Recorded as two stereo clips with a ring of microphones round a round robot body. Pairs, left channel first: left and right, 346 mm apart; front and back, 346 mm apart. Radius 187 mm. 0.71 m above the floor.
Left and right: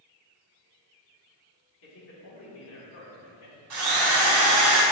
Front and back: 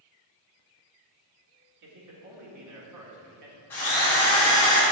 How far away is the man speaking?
About 1.9 m.